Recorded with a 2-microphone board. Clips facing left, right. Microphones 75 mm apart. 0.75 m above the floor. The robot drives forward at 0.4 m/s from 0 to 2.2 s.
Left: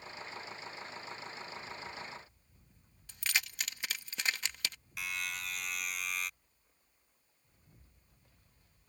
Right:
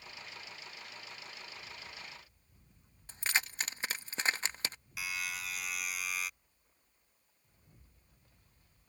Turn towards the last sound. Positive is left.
turn(degrees=-5)  # may be behind; listen again after turning